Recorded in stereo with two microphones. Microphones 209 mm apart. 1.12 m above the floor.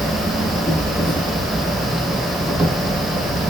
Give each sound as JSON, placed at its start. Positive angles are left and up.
{"t": 0.0, "sound": "an insect", "side_deg": -15, "distance_m": 1.4}